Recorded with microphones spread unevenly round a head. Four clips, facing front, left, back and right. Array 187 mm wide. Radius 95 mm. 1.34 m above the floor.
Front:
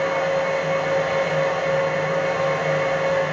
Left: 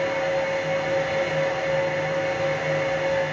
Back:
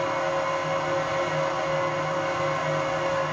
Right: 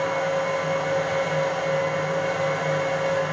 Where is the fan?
15° right, 3 m.